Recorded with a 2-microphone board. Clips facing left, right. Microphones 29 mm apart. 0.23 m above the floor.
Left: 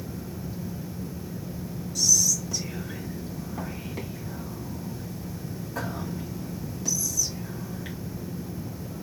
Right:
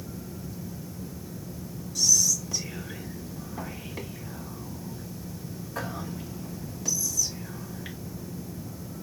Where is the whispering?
Centre (ahead or behind), 1.6 m.